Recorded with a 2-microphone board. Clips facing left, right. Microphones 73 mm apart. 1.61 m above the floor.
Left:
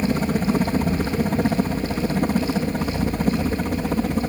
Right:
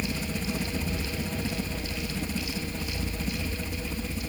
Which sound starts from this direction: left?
A helicopter, at 0.0 s.